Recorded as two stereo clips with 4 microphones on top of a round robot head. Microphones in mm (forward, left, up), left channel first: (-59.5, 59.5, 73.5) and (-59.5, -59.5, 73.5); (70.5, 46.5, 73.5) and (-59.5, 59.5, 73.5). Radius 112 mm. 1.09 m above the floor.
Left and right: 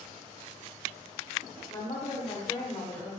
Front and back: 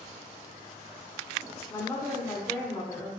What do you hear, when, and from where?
1.7 s a woman speaking: 55° left, 0.9 m